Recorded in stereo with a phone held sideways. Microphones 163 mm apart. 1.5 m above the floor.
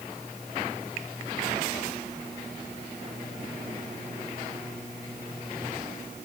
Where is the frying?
I don't hear frying.